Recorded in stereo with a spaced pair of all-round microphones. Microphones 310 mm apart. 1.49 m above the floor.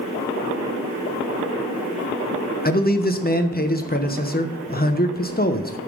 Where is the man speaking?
30° left (ahead or behind), 1.0 m.